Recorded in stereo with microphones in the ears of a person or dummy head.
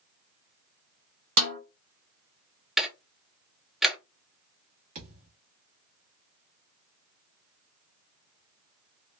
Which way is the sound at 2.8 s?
5° left (ahead or behind).